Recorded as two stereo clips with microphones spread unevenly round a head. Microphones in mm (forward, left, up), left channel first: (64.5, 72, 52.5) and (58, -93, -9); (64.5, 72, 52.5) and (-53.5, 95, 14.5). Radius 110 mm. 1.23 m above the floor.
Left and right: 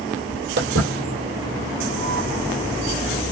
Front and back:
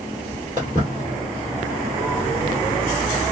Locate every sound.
0.6 s footsteps: 90° right, 1.4 m; by 3.2 s 60° left, 1.7 m